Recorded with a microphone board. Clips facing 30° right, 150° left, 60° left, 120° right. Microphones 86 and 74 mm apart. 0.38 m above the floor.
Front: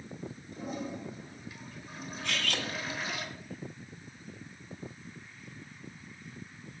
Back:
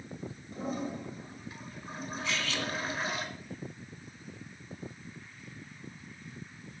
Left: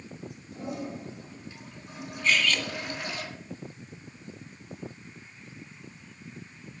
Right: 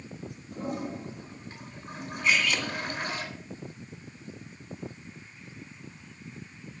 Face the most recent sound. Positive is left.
turn(degrees=-40)